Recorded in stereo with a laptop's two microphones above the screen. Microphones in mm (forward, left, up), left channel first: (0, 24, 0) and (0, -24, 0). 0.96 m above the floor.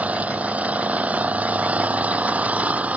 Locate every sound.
0.0 s an engine running: 30° right (ahead or behind)